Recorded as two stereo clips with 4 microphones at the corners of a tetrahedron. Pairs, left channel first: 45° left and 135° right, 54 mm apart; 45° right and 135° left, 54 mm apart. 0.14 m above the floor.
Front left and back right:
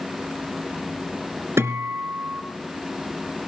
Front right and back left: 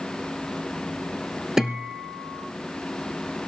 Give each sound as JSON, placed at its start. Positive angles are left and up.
{"t": 1.6, "sound": "a guitar", "azimuth_deg": -145, "distance_m": 2.0}